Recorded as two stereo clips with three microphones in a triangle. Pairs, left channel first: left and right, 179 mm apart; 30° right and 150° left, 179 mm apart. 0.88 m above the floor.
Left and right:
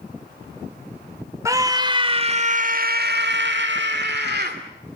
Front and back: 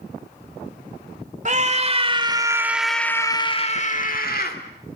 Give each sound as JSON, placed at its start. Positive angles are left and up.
{"t": 1.4, "sound": "a scream", "azimuth_deg": -160, "distance_m": 2.5}